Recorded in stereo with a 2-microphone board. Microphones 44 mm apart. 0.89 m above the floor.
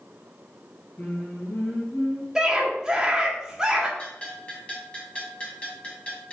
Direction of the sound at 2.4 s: 15° right (ahead or behind).